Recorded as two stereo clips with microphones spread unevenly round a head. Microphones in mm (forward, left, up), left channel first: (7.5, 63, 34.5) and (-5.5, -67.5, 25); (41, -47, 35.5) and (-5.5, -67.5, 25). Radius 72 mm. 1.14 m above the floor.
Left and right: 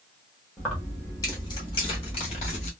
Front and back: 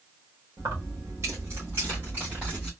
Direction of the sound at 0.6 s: 170° left.